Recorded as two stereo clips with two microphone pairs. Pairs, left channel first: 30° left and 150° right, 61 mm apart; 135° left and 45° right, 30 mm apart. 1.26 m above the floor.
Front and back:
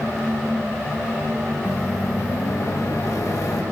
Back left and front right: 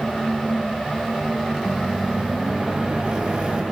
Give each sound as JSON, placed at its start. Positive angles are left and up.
{"t": 1.6, "sound": "a microwave", "azimuth_deg": 5, "distance_m": 1.4}